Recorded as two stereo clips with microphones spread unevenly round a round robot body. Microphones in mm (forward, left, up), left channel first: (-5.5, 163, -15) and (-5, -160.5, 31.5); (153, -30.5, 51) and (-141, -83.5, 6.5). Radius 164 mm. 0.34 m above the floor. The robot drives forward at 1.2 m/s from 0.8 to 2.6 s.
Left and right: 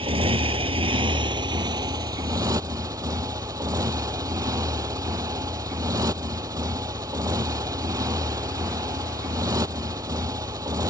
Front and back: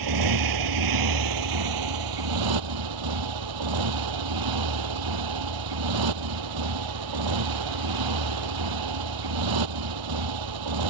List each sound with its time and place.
0.0 s a motorcycle: 165° right; by 10.9 s 170° right